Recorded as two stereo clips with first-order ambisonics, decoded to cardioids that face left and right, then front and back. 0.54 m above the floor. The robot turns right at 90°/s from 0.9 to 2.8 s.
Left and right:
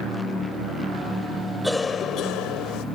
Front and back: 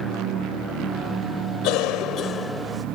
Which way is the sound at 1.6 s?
5° right.